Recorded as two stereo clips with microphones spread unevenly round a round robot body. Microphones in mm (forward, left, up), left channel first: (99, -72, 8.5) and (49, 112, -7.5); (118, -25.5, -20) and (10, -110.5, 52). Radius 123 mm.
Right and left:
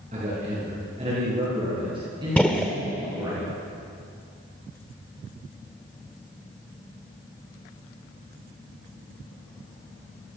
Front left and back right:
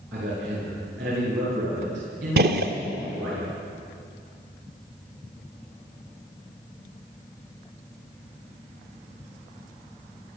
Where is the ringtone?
No ringtone in this recording.